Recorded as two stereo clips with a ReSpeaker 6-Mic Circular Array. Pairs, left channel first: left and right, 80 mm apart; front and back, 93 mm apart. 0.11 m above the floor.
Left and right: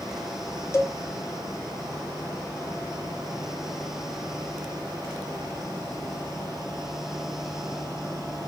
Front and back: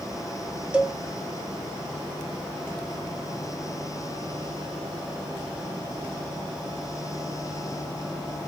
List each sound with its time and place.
0.7 s a cowbell: 110° left, 0.5 m